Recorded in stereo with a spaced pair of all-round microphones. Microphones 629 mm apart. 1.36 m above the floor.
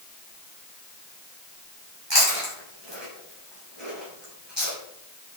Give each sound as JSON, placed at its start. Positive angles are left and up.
{"t": 2.1, "sound": "chewing", "side_deg": -40, "distance_m": 5.5}